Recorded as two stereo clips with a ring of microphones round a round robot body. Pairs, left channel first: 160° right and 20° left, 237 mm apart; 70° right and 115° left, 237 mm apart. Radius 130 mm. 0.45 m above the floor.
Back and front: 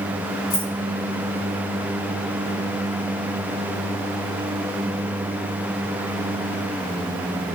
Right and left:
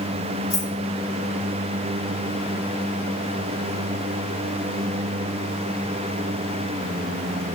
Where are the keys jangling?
155° right, 1.6 m.